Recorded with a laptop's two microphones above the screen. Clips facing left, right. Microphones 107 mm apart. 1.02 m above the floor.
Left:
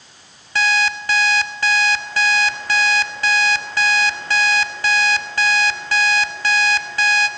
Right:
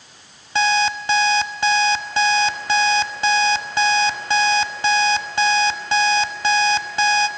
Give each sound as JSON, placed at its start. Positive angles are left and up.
{"t": 0.6, "sound": "an alarm clock", "side_deg": -20, "distance_m": 1.0}